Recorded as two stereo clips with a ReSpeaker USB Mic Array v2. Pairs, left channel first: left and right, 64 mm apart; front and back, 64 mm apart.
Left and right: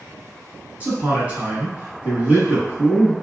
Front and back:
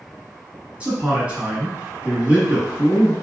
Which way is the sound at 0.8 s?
130° right.